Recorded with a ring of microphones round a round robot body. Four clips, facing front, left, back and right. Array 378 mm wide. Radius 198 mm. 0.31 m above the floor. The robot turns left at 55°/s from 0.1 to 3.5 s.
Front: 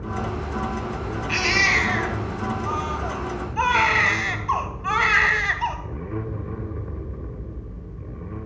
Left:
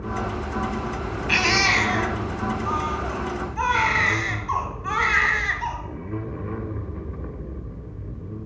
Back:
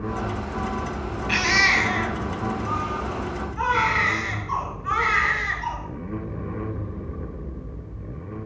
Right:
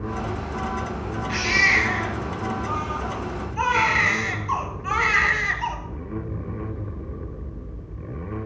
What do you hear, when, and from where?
1.3 s a baby crying: 120° left, 1.4 m; by 5.8 s 5° right, 1.4 m